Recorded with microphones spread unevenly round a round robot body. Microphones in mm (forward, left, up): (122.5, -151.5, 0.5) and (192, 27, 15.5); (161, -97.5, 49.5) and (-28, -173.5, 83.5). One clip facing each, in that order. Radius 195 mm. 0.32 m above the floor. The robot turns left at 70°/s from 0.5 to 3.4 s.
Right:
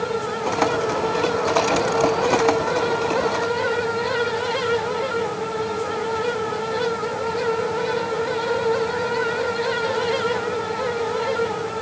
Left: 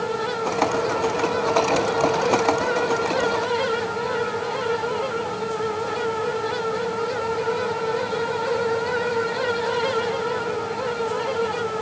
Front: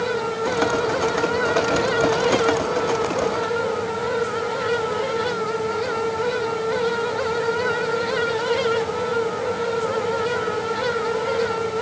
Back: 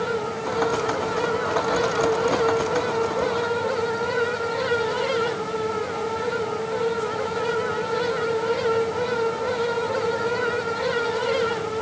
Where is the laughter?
I don't hear laughter.